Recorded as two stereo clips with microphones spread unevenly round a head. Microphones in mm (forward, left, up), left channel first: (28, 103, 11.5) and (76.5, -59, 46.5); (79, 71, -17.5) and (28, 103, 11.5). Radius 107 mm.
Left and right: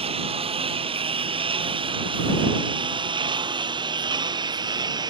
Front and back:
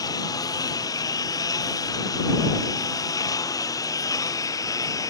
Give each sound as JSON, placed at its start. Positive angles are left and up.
{"t": 0.0, "sound": "a lawn mower", "azimuth_deg": -15}